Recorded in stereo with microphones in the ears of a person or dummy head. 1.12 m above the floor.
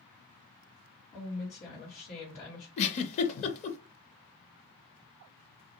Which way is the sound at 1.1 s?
50° left (ahead or behind).